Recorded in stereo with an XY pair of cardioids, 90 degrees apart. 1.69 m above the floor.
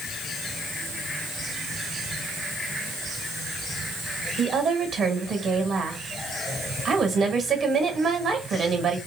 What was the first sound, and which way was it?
A woman speaking, 70° right.